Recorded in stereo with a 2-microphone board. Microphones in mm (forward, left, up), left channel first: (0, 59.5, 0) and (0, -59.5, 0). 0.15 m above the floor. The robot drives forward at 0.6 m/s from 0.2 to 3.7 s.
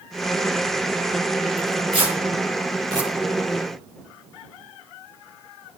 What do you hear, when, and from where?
1.6 s tearing paper: 50° right (ahead or behind), 1.7 m; by 3.1 s 35° right (ahead or behind), 2 m